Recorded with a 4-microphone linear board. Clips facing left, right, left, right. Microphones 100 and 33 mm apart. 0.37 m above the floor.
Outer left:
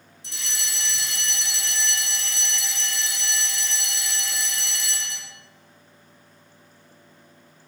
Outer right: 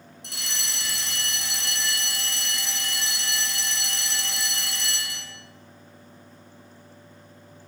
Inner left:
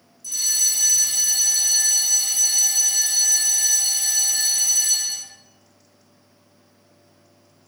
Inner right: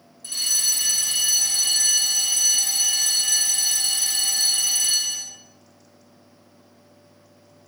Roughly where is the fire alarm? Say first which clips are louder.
Even, inner left 1 dB; right.